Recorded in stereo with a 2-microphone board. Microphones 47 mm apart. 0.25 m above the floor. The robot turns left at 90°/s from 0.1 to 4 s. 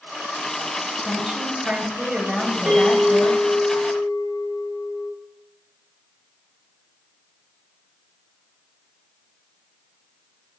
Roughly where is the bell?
Behind right.